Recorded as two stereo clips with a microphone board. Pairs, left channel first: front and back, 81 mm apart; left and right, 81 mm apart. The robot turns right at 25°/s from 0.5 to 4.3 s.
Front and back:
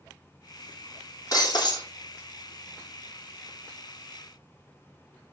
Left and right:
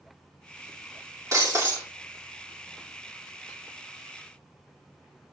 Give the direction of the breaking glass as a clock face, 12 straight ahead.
1 o'clock.